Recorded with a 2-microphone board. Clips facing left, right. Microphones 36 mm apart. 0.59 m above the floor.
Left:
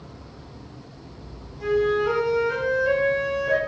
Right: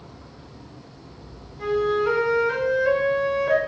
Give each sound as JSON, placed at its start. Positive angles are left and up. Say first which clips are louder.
{"t": 1.6, "sound": "a flute", "louder": "even", "side_deg": -35, "distance_m": 1.6}